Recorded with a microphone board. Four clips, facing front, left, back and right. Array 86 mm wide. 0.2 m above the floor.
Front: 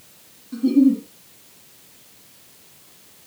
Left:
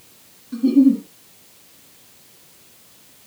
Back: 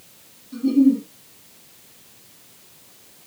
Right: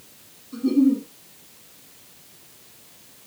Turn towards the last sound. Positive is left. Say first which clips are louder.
# left 5 dB, even
turn(degrees=70)